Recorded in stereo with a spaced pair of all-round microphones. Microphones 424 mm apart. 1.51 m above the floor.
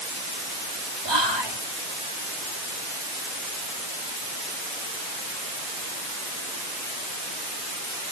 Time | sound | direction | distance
1.1 | whispering | 85° right | ?